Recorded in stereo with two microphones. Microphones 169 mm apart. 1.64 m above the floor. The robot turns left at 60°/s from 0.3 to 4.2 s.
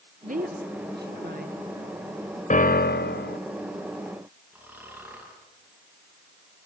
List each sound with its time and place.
0.2 s a woman speaking: 50° right (ahead or behind), 1.3 m; by 1.6 s 55° right (ahead or behind), 1.3 m
2.5 s a piano: 130° left, 0.7 m; by 3.4 s 80° left, 0.7 m
4.5 s snoring: 10° right (ahead or behind), 7 m